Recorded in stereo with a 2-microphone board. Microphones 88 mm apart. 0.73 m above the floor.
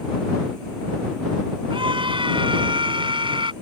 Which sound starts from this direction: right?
A scream, at 1.7 s.